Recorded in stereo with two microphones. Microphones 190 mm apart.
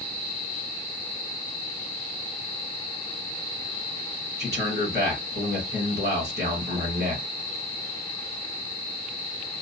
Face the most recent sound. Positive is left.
turn(degrees=-60)  # may be behind; listen again after turning